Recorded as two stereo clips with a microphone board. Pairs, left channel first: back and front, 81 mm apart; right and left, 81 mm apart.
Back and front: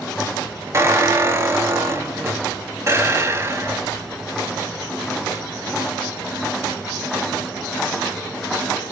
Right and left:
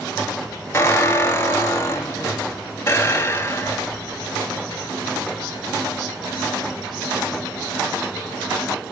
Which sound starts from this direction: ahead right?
A squeak, at 0.7 s.